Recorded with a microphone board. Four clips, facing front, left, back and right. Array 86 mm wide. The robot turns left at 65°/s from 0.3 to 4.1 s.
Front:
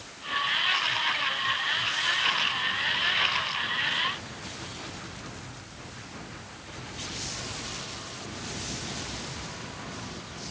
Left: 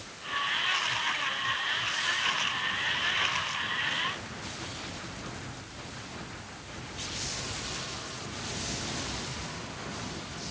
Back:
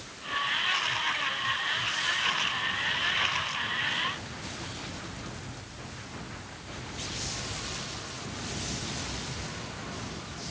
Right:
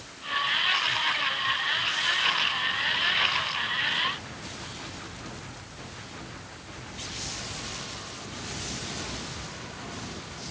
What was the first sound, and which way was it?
Only background noise.